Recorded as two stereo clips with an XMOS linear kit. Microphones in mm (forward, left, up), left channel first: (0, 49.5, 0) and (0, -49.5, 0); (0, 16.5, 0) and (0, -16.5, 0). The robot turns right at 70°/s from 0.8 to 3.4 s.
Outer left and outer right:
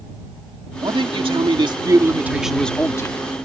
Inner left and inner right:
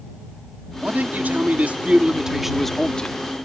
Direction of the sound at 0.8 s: 120° right.